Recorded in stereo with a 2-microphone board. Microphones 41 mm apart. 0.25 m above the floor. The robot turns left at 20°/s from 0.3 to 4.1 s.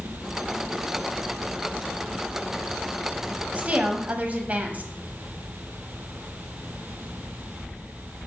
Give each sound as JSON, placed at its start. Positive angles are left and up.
{"t": 3.5, "sound": "a woman speaking", "side_deg": -35, "distance_m": 1.2}